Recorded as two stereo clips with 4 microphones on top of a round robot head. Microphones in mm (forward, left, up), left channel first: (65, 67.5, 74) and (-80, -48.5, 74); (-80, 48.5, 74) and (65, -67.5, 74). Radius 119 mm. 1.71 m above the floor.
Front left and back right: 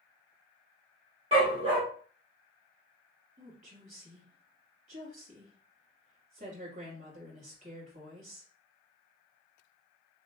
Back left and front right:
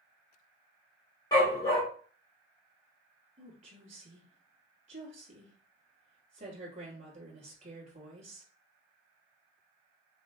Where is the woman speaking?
90° right, 3.5 m.